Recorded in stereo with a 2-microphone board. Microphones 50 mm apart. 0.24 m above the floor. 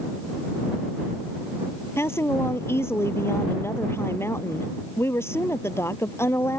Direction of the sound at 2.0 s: 60° left (ahead or behind).